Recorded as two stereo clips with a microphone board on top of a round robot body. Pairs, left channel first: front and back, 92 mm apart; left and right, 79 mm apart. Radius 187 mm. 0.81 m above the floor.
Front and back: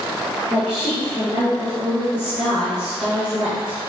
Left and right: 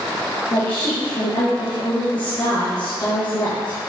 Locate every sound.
0.5 s a woman speaking: 100° left, 1.6 m